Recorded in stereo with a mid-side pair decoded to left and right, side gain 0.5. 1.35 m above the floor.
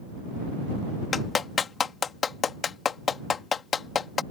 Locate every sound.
1.1 s a clap: 40° left